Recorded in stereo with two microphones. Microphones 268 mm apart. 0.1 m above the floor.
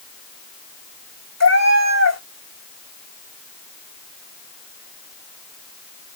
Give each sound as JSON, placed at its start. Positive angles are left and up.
{"t": 1.4, "sound": "a cat meowing", "side_deg": 75, "distance_m": 3.0}